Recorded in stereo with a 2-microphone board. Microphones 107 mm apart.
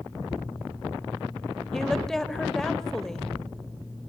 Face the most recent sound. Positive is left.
turn(degrees=5)  # may be behind; listen again after turning